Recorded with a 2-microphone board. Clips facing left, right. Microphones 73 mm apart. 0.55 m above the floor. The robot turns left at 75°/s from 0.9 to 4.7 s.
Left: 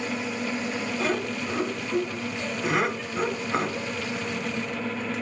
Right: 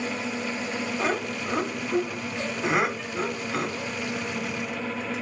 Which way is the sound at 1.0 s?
20° right (ahead or behind).